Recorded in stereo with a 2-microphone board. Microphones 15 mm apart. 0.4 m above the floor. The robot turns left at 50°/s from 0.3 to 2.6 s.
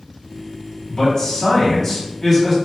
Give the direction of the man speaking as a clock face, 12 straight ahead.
9 o'clock.